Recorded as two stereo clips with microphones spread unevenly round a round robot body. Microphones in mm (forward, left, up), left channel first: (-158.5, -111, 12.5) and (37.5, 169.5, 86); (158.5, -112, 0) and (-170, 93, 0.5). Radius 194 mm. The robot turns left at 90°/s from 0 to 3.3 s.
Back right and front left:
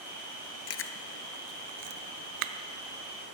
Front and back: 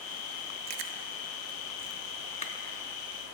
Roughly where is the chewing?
Behind.